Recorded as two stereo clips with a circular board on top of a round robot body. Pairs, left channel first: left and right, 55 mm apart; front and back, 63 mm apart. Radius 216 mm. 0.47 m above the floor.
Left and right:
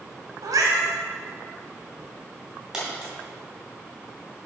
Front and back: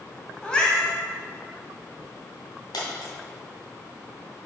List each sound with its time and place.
0.4 s a cat meowing: 80° right, 1.3 m
2.7 s a dropped coin: 10° right, 2.5 m